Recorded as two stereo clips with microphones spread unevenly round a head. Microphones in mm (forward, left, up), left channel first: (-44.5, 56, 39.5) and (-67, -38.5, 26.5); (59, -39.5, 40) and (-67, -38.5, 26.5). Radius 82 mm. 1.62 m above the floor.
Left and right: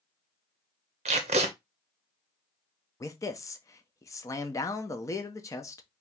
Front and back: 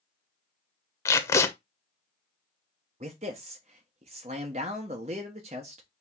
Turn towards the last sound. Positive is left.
turn(degrees=125)